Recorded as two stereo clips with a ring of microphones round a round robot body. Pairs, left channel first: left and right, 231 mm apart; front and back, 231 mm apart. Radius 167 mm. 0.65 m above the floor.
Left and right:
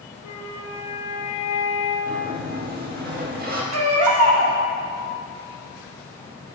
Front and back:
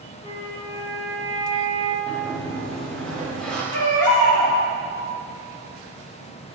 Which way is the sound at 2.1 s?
85° right.